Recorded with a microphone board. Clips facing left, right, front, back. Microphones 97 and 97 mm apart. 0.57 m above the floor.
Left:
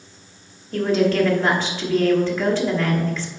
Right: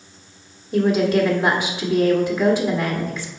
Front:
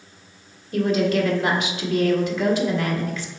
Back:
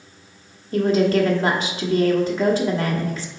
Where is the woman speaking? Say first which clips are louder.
Right 1 dB, back 3 dB; 160° right, 1.3 m.